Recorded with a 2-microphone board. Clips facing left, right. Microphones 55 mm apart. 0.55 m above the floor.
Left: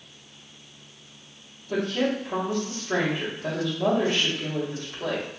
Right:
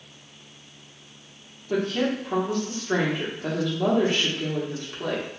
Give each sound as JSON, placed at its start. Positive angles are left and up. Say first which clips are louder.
{"t": 1.7, "sound": "a woman speaking", "louder": "right 1 dB", "side_deg": -45, "distance_m": 1.0}